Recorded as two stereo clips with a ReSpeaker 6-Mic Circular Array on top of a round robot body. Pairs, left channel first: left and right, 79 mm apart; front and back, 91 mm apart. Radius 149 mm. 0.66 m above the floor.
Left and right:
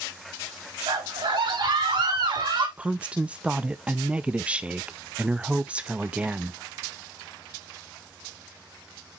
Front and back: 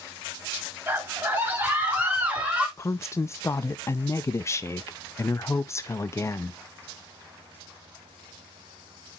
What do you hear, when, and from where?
0.9 s a scream: 110° right, 4.5 m; by 2.7 s 105° right, 4 m
2.8 s a woman speaking: 25° right, 0.7 m